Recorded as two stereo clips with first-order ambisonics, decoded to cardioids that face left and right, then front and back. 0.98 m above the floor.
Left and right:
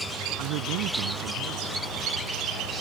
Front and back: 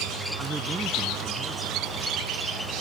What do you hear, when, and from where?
0.4 s a man speaking: 100° right